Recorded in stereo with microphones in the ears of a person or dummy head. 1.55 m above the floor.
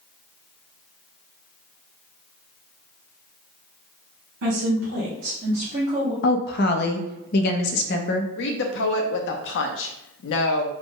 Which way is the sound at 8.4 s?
65° left (ahead or behind).